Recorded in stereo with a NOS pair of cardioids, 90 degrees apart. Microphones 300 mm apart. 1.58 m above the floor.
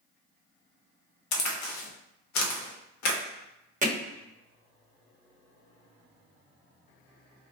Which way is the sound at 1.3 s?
65° left.